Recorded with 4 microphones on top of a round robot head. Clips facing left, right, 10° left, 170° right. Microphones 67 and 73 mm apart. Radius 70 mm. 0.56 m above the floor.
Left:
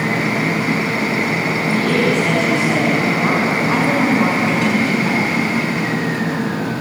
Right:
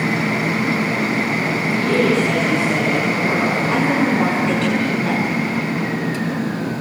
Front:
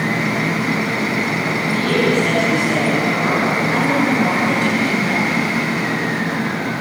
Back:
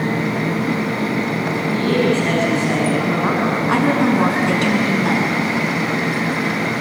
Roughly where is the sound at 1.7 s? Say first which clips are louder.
Even, even; behind left.